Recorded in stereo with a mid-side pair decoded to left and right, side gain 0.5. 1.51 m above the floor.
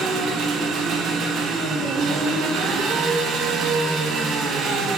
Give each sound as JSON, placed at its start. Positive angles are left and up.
{"t": 0.0, "sound": "an engine running", "azimuth_deg": -60, "distance_m": 0.9}